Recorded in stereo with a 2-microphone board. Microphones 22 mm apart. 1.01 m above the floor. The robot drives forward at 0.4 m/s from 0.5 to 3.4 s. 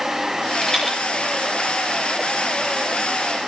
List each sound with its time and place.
0.6 s a rattle: 5° left (ahead or behind), 8.5 m